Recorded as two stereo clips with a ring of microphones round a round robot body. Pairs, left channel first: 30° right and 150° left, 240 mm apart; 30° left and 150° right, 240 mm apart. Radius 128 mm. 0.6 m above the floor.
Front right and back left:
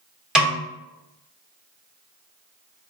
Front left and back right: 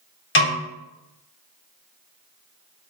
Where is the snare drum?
65° left, 1.2 m.